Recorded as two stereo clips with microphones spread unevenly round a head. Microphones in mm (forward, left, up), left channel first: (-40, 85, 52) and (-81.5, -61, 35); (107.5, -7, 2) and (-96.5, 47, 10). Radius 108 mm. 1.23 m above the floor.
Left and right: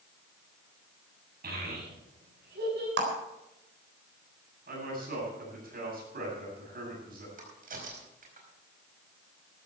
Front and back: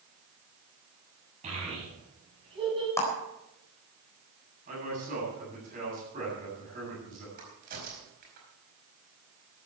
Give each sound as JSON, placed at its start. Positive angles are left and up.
{"t": 1.4, "sound": "a child speaking", "azimuth_deg": -130, "distance_m": 8.0}
{"t": 3.0, "sound": "a clap", "azimuth_deg": -95, "distance_m": 4.0}
{"t": 4.7, "sound": "a man speaking", "azimuth_deg": -135, "distance_m": 9.0}
{"t": 7.4, "sound": "a crack", "azimuth_deg": -140, "distance_m": 4.5}